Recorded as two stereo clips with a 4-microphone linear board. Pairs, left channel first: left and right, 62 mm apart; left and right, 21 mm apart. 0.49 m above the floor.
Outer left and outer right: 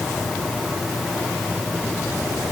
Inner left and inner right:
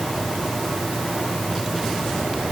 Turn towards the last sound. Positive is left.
No sound to turn to.